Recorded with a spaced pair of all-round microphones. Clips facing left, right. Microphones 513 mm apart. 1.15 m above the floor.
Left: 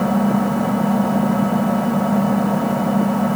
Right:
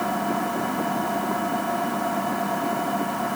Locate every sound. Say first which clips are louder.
0.0 s an engine running: left 10 dB; 75° left (ahead or behind)